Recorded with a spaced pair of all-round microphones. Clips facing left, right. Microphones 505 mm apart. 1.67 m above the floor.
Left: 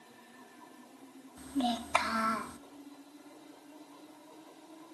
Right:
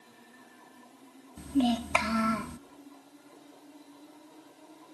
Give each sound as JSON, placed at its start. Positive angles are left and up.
{"t": 1.4, "sound": "a child speaking", "side_deg": -50, "distance_m": 0.6}